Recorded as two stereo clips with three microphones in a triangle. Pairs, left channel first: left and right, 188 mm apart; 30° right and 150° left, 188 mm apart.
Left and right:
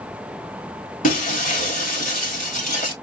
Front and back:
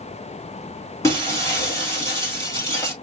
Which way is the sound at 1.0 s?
45° left.